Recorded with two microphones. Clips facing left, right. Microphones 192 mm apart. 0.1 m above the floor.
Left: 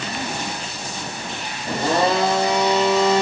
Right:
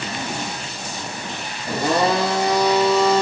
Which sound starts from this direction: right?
A blender, at 1.7 s.